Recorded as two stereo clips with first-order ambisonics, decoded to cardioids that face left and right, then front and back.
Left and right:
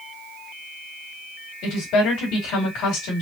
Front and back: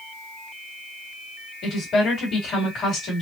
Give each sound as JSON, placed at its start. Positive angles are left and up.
{"t": 1.6, "sound": "a woman speaking", "azimuth_deg": 55, "distance_m": 2.5}